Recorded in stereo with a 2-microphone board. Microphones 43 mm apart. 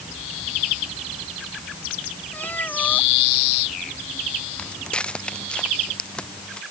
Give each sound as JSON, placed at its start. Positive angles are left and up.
{"t": 2.3, "sound": "a cat meowing", "side_deg": 45}
{"t": 4.6, "sound": "footsteps", "side_deg": 25}